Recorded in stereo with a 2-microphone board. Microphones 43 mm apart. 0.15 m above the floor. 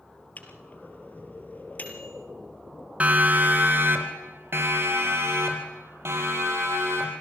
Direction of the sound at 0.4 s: 40° left (ahead or behind).